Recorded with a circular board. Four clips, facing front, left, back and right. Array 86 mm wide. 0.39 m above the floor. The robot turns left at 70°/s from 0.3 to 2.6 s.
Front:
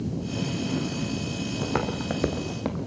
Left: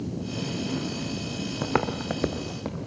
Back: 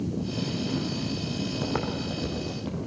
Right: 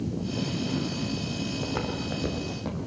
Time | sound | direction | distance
1.6 | footsteps | 90° left | 3.5 m